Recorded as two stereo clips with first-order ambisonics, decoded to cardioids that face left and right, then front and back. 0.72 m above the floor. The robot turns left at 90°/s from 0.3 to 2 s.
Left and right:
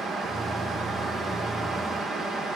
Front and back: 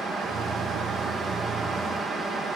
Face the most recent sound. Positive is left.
No sound to turn to.